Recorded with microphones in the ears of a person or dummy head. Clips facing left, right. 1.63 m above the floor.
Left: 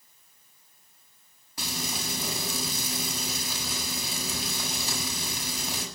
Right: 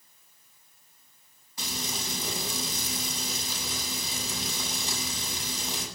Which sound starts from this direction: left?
Frying, at 1.6 s.